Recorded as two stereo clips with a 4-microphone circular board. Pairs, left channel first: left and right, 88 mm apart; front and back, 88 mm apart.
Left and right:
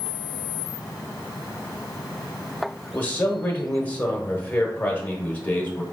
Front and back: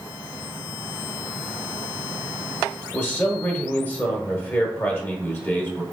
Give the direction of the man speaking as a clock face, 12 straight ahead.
11 o'clock.